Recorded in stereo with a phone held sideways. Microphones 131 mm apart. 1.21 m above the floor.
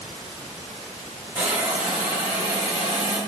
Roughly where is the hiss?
Centre.